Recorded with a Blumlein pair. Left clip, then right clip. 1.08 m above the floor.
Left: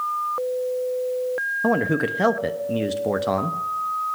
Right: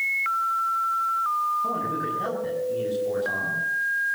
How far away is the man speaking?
About 0.9 m.